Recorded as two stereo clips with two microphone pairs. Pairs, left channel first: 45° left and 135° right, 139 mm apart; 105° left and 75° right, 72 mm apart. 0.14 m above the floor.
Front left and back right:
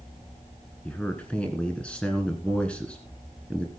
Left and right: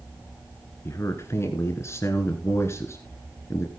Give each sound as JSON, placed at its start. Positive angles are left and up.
{"t": 0.8, "sound": "a man speaking", "azimuth_deg": 120, "distance_m": 1.6}